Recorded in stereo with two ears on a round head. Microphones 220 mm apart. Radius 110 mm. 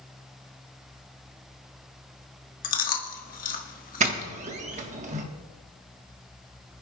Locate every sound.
2.6 s chewing: 35° left (ahead or behind), 1.4 m
4.0 s a doorbell: 30° right (ahead or behind), 1.4 m